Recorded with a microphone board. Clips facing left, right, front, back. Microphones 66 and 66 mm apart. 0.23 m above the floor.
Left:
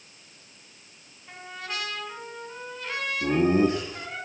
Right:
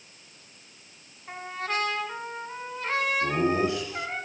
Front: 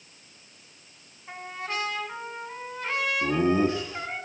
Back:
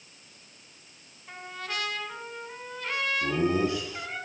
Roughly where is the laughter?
Ahead left.